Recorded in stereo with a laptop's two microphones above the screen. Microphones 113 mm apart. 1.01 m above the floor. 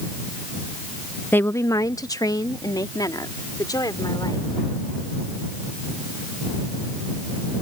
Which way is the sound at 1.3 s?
15° left (ahead or behind).